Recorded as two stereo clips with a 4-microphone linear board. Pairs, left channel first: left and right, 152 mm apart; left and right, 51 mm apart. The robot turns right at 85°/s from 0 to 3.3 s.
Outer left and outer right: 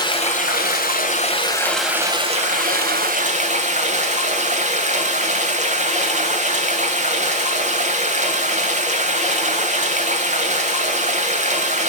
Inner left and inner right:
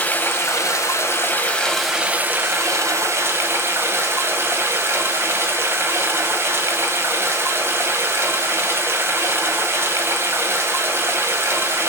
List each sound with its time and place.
0.0 s running water: 25° left, 2 m; by 11.9 s 55° right, 2 m